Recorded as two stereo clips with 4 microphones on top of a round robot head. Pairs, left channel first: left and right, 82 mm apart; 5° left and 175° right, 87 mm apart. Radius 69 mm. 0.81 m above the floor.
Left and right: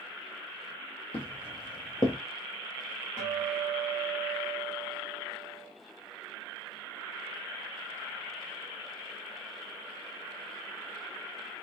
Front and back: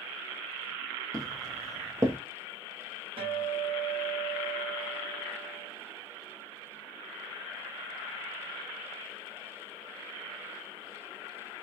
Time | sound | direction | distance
1.1 | footsteps | 135° left | 1.5 m
3.2 | a guitar | 165° right | 1.7 m